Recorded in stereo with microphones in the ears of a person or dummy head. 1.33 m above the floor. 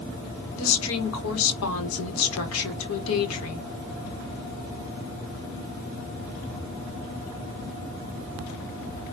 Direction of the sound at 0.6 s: 75° left (ahead or behind).